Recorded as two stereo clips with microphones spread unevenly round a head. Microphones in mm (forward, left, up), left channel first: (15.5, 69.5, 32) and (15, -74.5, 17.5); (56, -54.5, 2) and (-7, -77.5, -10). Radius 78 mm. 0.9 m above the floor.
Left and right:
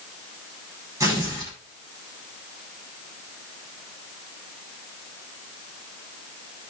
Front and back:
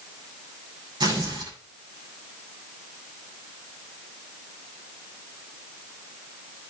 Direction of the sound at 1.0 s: 160° right.